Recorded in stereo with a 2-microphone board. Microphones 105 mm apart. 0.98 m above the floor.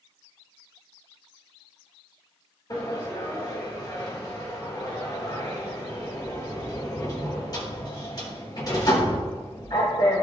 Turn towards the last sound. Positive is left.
turn(degrees=40)  # may be behind; listen again after turning